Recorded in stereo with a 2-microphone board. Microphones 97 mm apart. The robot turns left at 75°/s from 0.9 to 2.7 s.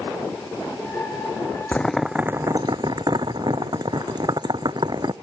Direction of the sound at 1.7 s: 15° left (ahead or behind).